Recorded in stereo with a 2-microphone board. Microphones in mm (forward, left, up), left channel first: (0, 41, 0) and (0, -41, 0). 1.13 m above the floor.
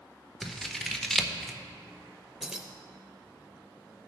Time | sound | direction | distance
0.4 | scissors | 5° left (ahead or behind) | 0.6 m
2.4 | keys jangling | 5° right (ahead or behind) | 0.7 m